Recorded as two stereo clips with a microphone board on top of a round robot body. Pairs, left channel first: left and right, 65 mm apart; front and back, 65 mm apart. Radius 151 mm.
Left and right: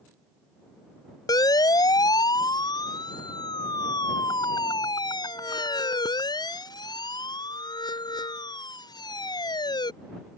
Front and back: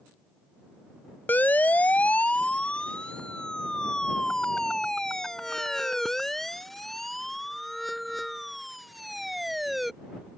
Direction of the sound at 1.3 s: 65° left.